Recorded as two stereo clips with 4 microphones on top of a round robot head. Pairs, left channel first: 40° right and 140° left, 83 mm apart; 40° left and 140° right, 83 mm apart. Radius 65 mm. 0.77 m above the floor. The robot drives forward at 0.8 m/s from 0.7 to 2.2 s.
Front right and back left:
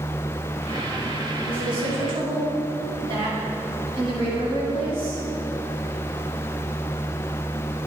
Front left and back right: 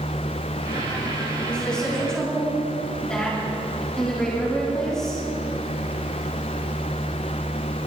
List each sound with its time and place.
1.4 s a woman speaking: 115° left, 7 m; by 5.2 s 120° left, 7 m